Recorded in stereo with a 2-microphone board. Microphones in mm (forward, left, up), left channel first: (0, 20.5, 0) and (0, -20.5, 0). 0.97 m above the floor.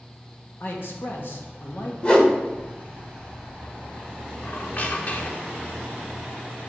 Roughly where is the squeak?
Left.